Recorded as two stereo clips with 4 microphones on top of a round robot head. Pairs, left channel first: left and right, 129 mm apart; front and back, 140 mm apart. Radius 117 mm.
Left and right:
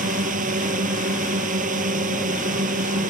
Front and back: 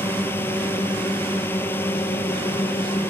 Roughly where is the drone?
Right.